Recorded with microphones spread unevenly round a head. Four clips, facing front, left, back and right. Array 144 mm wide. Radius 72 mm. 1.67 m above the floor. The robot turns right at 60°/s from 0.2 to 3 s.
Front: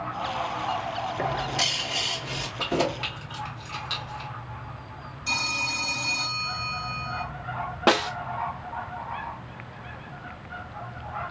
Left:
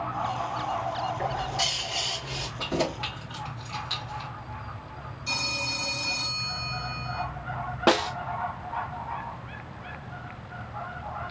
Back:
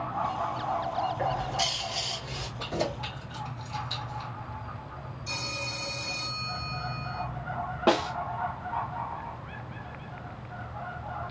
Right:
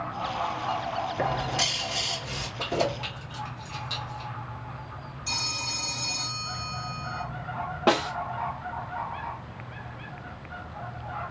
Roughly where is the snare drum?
Ahead left.